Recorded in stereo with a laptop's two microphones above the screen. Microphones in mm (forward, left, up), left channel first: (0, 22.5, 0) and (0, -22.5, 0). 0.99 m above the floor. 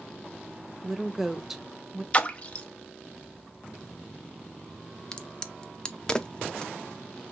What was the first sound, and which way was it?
A woman speaking, 5° right (ahead or behind).